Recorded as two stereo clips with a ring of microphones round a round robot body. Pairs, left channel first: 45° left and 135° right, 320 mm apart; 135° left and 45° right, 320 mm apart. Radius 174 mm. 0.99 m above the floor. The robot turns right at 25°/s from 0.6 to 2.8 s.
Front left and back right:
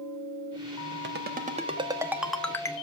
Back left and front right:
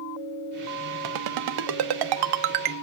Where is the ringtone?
75° right, 1.1 m; by 2.7 s 35° right, 1.1 m.